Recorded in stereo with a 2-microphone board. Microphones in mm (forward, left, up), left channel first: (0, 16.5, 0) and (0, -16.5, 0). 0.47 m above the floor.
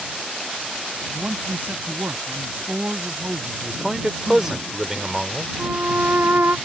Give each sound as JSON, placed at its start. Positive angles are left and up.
{"t": 1.1, "sound": "a man speaking", "side_deg": -70}
{"t": 3.6, "sound": "a man speaking", "side_deg": -15}
{"t": 5.6, "sound": "a violin", "side_deg": -75}